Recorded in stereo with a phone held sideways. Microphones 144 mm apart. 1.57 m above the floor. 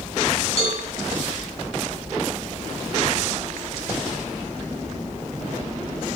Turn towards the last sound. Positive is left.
turn(degrees=50)  # may be behind; listen again after turning